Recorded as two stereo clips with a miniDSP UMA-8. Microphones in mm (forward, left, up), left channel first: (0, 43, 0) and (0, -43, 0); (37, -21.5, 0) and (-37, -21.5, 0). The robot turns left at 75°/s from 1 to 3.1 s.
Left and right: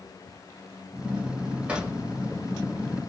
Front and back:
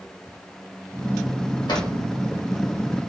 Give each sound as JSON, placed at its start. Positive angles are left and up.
{"t": 1.7, "sound": "a drawer", "azimuth_deg": -15, "distance_m": 1.2}